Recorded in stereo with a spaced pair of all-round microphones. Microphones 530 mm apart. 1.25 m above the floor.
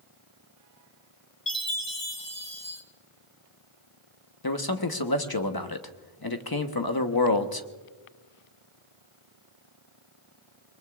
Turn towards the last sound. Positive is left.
turn(degrees=45)  # may be behind; listen again after turning